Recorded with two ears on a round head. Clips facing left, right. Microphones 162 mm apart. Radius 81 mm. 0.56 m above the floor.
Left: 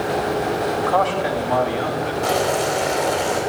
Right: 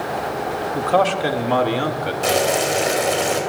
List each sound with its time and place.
0.7 s a man speaking: 30° right (ahead or behind), 1.4 m; by 2.1 s 50° right (ahead or behind), 1.8 m
2.2 s boiling: 30° right (ahead or behind), 3 m